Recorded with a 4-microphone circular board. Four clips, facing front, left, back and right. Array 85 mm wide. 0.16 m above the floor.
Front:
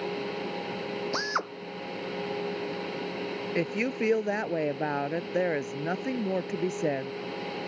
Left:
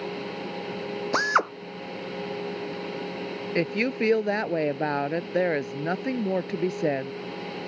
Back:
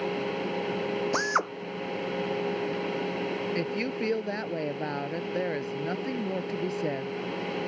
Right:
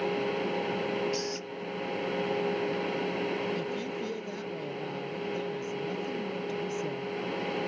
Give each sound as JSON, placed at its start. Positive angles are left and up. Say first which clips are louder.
{"t": 1.1, "sound": "a drill", "louder": "left 12 dB, back 3 dB", "azimuth_deg": 105}
{"t": 3.5, "sound": "a woman speaking", "louder": "left 8 dB, front 1 dB", "azimuth_deg": 75}